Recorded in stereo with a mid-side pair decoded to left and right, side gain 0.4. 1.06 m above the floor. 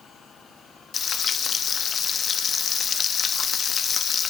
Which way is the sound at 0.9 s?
55° left.